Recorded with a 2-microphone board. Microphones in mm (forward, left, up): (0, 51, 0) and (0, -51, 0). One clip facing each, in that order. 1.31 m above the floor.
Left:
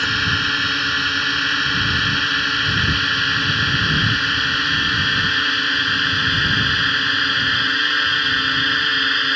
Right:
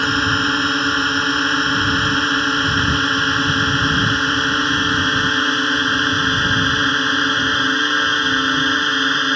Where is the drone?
30° right (ahead or behind).